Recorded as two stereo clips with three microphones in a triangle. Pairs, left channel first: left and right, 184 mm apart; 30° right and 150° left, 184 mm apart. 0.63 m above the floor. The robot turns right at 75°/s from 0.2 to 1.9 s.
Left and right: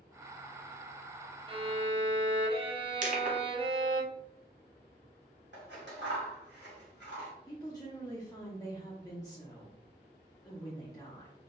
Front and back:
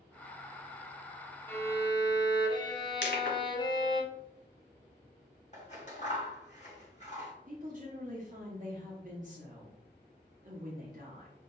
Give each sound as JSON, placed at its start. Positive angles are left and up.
{"t": 1.5, "sound": "a violin", "azimuth_deg": -100, "distance_m": 0.7}
{"t": 3.0, "sound": "crushing", "azimuth_deg": -45, "distance_m": 1.1}
{"t": 5.5, "sound": "scissors", "azimuth_deg": -85, "distance_m": 1.9}
{"t": 7.5, "sound": "a woman speaking", "azimuth_deg": 150, "distance_m": 1.0}